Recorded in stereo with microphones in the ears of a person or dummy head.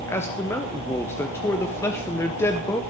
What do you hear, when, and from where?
0.1 s a man speaking: 10° left (ahead or behind), 0.9 m